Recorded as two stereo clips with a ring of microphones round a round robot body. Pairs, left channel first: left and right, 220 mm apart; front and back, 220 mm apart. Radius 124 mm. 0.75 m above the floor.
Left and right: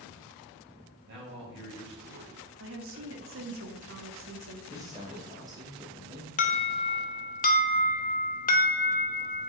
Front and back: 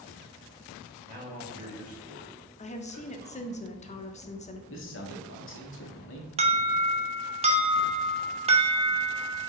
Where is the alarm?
125° left, 1.1 m.